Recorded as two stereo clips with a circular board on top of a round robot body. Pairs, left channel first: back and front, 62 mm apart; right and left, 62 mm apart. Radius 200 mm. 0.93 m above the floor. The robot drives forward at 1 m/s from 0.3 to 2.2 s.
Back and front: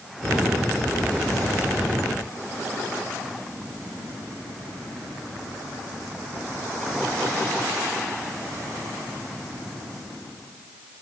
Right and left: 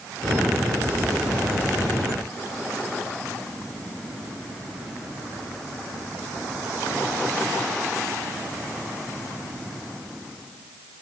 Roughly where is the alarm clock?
No alarm clock in this recording.